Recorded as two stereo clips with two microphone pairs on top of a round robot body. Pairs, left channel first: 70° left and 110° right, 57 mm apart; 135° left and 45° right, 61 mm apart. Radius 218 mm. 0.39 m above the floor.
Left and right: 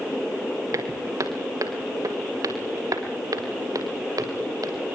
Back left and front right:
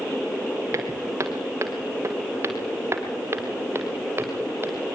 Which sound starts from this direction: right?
Footsteps, at 0.7 s.